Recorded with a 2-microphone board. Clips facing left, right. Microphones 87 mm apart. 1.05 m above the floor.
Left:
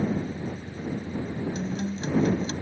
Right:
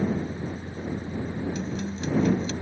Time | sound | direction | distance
1.6 | a guitar | 30° left (ahead or behind) | ?